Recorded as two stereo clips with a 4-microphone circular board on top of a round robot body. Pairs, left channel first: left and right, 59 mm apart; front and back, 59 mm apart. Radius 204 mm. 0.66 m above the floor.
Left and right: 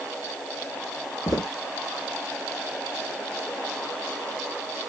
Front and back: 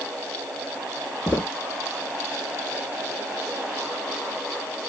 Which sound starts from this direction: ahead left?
Footsteps, at 1.3 s.